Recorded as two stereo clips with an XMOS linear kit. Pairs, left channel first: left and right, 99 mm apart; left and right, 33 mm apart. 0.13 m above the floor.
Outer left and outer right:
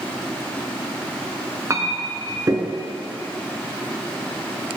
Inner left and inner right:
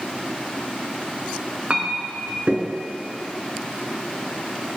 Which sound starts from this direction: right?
A clink, at 1.7 s.